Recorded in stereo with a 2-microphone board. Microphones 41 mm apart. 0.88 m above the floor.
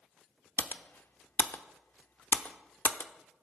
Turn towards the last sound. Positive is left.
turn(degrees=55)  # may be behind; listen again after turning